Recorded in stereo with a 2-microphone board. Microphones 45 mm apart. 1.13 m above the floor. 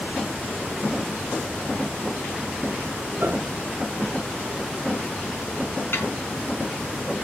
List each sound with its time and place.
3.2 s a piano: 70° right (ahead or behind), 2 m
5.9 s a snare drum: 60° left (ahead or behind), 5 m